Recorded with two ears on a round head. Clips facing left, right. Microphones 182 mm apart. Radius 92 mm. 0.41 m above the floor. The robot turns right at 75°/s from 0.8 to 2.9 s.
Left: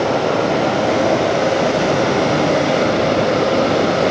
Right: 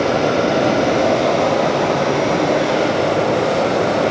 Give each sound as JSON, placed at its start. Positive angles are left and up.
{"t": 0.0, "sound": "running water", "azimuth_deg": -25, "distance_m": 1.4}